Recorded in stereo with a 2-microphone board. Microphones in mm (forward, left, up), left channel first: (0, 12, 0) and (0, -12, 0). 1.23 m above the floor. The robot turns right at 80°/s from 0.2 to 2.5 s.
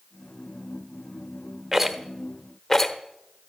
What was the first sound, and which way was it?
A rattle, 20° right (ahead or behind).